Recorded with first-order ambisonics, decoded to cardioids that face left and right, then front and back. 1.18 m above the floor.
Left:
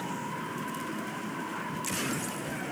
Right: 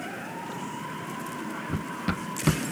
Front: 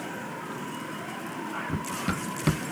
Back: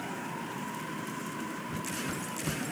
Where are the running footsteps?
55° right.